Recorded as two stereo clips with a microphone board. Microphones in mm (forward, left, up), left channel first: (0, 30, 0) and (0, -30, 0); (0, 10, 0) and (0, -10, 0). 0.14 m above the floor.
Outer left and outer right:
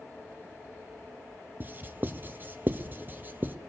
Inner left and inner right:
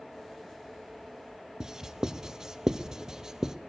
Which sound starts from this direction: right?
Writing, at 1.6 s.